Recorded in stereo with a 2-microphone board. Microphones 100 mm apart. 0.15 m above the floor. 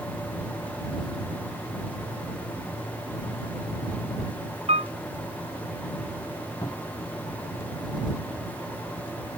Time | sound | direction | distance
4.7 | a piano | 85° right | ?
6.6 | a cupboard door | 50° left (ahead or behind) | ?